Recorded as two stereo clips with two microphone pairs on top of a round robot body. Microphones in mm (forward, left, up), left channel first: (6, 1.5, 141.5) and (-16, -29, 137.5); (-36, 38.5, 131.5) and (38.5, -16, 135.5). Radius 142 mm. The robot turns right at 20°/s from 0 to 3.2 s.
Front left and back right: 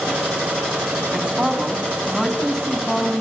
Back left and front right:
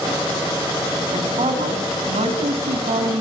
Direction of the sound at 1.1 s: 55° right.